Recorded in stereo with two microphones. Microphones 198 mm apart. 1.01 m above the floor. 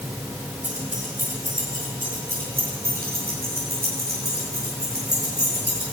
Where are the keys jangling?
40° right (ahead or behind), 8.5 m; by 5.8 s 55° right (ahead or behind), 12.5 m.